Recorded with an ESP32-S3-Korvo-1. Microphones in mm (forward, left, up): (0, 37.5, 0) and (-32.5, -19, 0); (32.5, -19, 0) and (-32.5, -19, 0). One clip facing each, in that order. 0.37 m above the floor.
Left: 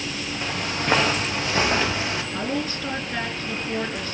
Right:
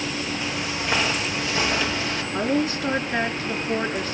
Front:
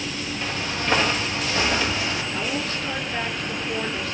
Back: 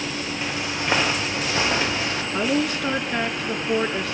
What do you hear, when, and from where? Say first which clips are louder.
0.4 s footsteps: left 1 dB, front 1 dB; 100° left, 6.5 m; by 2.2 s 125° left, 6 m
2.3 s a woman speaking: right 4 dB, back 5 dB; 170° left, 5.5 m